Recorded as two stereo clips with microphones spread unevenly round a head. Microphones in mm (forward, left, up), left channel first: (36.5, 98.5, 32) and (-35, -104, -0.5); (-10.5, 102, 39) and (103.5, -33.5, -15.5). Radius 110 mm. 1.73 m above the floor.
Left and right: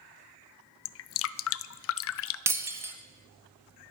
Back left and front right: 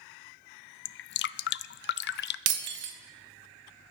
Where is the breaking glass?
25° right, 1.6 m.